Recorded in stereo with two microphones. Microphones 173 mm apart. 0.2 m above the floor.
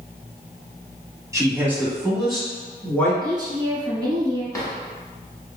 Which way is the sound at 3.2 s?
25° right (ahead or behind).